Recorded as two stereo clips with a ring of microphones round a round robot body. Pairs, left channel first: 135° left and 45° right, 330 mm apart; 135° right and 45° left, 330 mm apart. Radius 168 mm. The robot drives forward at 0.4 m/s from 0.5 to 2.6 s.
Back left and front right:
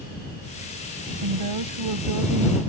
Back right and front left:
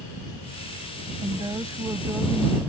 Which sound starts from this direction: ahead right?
A woman speaking, at 1.2 s.